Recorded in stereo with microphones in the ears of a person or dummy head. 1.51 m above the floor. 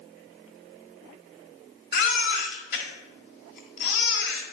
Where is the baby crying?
55° left (ahead or behind), 1.8 m.